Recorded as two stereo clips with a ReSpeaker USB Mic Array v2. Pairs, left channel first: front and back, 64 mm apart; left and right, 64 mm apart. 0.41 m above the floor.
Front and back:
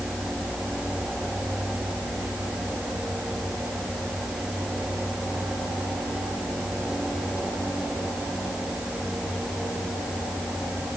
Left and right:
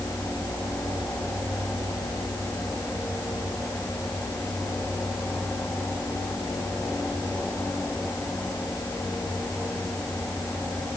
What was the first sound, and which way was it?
Only background noise.